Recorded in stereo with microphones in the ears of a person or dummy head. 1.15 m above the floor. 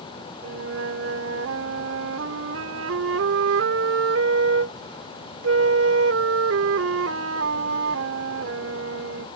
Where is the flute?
85° right.